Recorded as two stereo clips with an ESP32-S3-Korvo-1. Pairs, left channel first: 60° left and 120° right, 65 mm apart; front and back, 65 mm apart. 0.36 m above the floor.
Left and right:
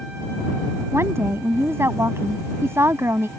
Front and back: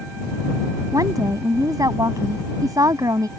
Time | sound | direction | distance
0.9 | a woman speaking | 165° right | ?